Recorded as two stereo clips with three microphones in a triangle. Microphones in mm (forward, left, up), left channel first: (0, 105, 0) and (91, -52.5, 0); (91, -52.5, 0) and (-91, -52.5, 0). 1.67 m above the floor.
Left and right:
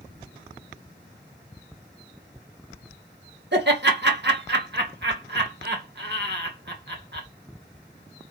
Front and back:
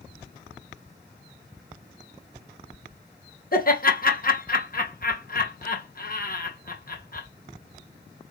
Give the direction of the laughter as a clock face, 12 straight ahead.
1 o'clock.